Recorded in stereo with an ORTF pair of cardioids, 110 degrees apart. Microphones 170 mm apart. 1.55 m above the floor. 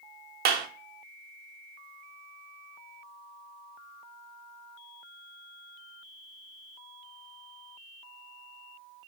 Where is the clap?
65° right, 0.5 m.